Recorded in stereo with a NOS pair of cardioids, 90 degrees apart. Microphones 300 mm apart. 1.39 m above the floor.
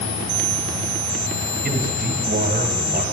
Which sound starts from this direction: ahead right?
A man speaking, at 1.6 s.